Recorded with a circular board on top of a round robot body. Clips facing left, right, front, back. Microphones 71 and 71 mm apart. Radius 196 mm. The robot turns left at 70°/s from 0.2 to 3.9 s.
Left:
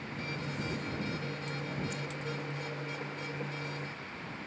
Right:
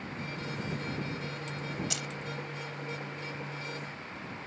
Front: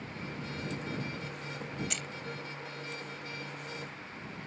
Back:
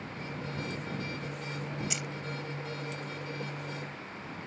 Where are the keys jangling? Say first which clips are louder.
Even, back 3 dB; 95° right; by 2.1 s 105° right.